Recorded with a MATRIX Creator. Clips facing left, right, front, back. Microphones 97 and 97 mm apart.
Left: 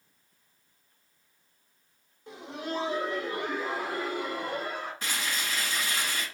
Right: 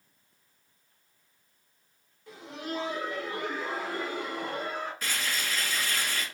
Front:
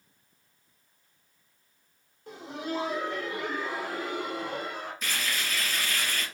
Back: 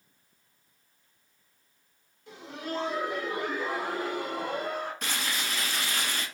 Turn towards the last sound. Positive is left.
turn(degrees=160)